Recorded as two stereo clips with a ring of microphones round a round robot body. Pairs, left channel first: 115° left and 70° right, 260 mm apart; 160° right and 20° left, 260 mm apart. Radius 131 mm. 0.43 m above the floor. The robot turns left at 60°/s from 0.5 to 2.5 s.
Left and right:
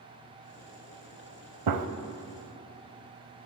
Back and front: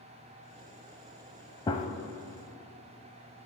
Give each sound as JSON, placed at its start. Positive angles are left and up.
{"t": 1.7, "sound": "a gunshot", "azimuth_deg": -85, "distance_m": 0.6}